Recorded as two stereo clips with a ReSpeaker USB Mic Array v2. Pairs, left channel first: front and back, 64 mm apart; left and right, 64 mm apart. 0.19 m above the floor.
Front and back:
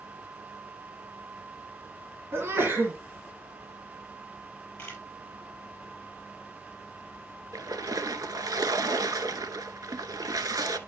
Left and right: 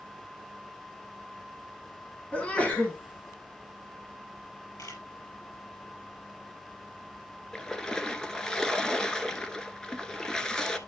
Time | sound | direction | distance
2.3 | a sneeze | 150° left | 1.6 m
4.8 | a camera shutter | 70° left | 5 m
7.5 | a splash | 170° left | 0.9 m